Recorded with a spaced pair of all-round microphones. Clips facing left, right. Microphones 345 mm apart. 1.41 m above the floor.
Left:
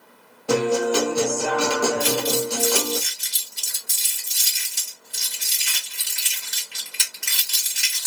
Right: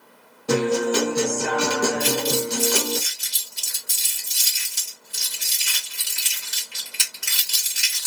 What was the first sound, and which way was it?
A guitar, 30° right (ahead or behind).